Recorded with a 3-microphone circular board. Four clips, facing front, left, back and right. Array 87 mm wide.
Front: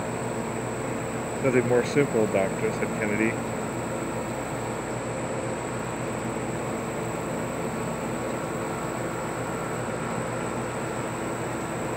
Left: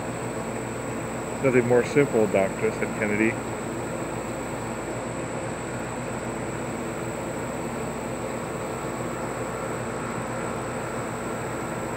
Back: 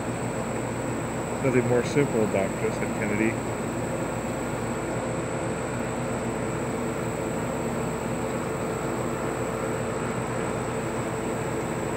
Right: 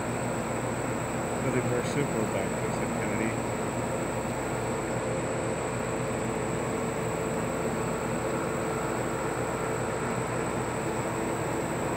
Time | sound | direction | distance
1.4 | a man speaking | 75° left | ?